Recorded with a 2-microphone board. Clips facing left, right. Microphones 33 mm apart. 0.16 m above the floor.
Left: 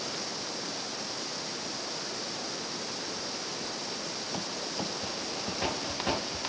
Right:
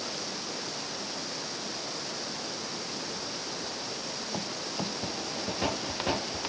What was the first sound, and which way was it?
Only background noise.